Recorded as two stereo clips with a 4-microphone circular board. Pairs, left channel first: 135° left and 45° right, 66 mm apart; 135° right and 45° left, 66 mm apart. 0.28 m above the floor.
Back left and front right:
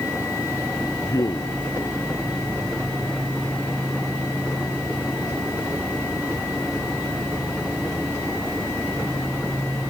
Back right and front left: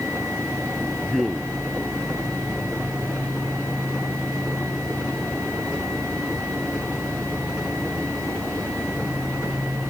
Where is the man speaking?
130° left.